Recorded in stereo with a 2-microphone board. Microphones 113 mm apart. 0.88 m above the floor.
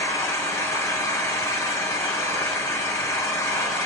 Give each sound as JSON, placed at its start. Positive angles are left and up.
{"t": 0.0, "sound": "an engine running", "side_deg": 25, "distance_m": 1.1}